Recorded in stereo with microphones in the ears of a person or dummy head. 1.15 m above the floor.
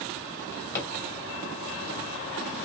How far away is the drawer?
About 1.7 m.